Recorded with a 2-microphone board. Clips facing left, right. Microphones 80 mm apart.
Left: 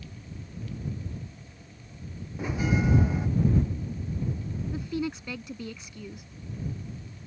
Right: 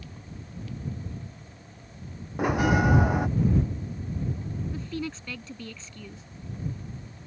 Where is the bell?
70° right (ahead or behind).